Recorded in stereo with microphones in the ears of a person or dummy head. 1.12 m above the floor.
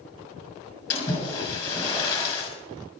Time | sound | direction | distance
0.9 | a splash | 25° left (ahead or behind) | 6 m